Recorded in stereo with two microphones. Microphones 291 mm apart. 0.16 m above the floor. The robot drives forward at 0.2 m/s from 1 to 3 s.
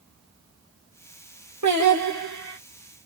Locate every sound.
1.6 s singing: 80° right, 1.2 m; by 2.6 s 75° right (ahead or behind), 1.2 m